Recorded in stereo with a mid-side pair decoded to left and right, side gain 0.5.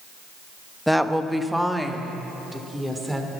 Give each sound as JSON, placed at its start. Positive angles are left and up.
{"t": 0.9, "sound": "a woman speaking", "azimuth_deg": 0, "distance_m": 1.1}